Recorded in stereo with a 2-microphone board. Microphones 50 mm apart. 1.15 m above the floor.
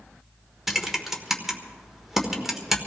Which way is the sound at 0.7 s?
5° right (ahead or behind).